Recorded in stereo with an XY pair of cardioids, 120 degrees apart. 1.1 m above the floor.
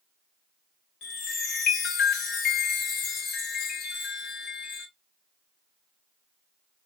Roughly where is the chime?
Left.